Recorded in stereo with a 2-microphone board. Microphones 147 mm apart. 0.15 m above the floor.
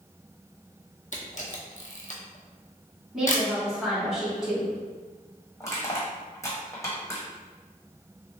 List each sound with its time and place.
1.1 s a camera shutter: 60° left (ahead or behind), 0.8 m
3.1 s a woman speaking: 5° right (ahead or behind), 1.8 m
5.6 s crushing: 20° left (ahead or behind), 1.4 m